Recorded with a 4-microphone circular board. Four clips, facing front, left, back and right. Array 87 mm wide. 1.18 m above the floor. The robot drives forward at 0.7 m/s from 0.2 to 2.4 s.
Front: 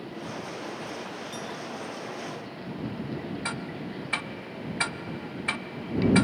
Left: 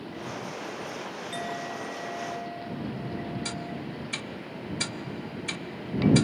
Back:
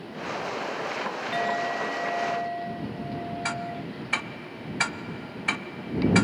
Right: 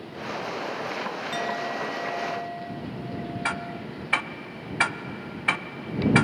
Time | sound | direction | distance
1.3 | a clink | 165° right | ?
3.5 | ticking | 100° right | ?